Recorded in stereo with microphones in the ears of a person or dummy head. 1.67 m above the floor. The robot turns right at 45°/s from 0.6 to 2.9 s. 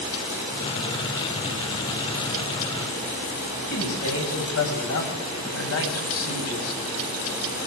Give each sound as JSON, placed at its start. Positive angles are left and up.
{"t": 3.7, "sound": "a man speaking", "side_deg": 85, "distance_m": 8.5}